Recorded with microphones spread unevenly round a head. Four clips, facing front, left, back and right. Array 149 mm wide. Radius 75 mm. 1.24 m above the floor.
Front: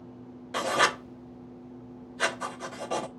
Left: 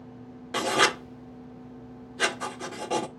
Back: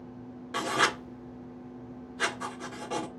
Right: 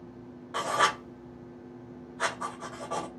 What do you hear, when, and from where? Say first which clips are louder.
0.5 s writing: left 2 dB, front 2 dB; 80° left, 3 m